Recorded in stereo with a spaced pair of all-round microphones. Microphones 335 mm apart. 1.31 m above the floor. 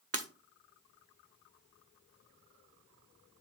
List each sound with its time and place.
0.1 s breaking glass: 40° right (ahead or behind), 1.1 m